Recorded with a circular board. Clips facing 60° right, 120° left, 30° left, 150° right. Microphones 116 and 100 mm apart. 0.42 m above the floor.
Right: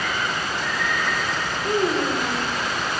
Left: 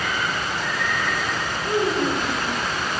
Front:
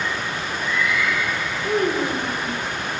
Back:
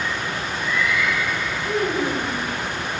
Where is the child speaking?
25° right, 0.8 m.